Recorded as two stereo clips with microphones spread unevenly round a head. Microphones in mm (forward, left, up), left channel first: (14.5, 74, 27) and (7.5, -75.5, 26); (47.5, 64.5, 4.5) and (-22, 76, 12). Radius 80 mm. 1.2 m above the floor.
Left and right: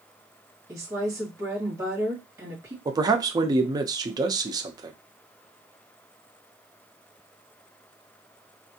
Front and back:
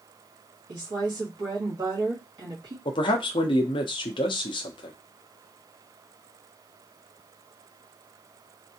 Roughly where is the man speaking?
Ahead right.